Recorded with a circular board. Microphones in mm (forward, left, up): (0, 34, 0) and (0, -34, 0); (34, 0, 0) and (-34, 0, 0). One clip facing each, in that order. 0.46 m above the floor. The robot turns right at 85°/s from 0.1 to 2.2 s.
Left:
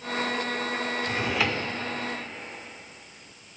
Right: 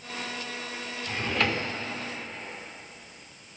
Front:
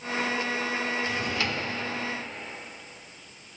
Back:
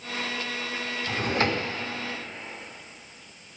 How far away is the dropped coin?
No dropped coin in this recording.